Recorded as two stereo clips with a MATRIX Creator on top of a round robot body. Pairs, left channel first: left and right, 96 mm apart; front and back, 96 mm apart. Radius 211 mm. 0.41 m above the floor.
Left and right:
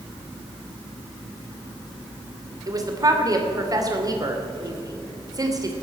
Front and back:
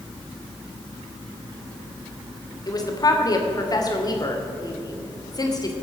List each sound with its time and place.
2.7 s a woman speaking: 45° right, 3 m